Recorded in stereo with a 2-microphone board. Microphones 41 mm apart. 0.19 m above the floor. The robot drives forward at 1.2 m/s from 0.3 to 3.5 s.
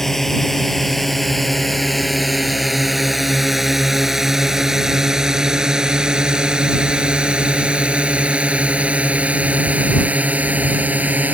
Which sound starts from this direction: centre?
A drone, at 0.0 s.